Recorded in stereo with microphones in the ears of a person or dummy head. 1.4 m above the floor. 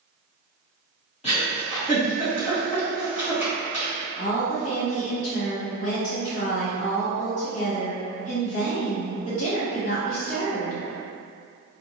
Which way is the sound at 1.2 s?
30° left (ahead or behind).